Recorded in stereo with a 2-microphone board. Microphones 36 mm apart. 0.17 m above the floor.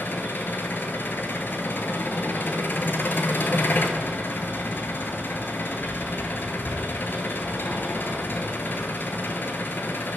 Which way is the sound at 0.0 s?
70° left (ahead or behind).